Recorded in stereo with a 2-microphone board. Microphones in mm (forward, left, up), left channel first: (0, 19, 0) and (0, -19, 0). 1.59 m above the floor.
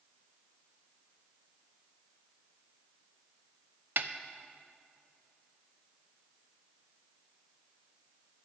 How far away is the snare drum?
About 0.5 m.